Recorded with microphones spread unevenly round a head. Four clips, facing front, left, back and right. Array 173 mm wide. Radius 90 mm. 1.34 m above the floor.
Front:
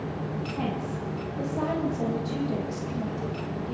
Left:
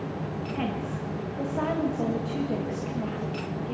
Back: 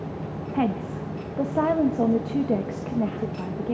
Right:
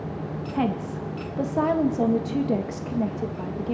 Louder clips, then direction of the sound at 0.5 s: Right 7 dB, back 8 dB; 145° right.